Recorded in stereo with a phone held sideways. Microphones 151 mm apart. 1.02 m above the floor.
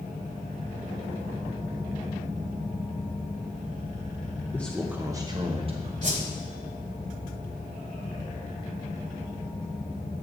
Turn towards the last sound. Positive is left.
turn(degrees=-55)  # may be behind; listen again after turning